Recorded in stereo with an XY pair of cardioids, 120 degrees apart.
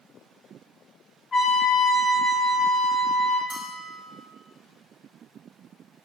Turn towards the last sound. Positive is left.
turn(degrees=-30)